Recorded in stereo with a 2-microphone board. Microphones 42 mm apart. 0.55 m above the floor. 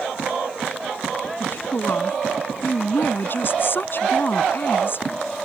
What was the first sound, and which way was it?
A woman speaking, 55° left (ahead or behind).